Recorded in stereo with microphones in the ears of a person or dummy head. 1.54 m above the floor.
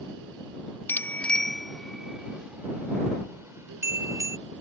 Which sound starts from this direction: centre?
A bicycle bell, at 0.9 s.